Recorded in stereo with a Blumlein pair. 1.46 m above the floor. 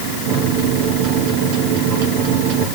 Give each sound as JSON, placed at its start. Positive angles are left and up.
{"t": 0.3, "sound": "a microwave", "azimuth_deg": -45, "distance_m": 3.0}